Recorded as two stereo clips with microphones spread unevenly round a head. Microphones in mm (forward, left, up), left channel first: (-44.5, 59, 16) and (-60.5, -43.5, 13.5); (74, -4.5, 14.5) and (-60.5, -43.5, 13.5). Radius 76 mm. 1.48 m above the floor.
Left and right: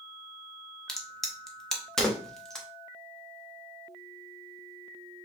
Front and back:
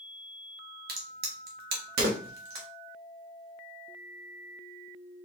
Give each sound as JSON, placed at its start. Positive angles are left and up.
{"t": 0.9, "sound": "a crack", "azimuth_deg": 165, "distance_m": 1.3}